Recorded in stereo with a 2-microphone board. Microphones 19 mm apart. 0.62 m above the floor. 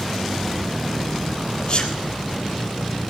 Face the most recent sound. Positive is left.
turn(degrees=45)  # may be behind; listen again after turning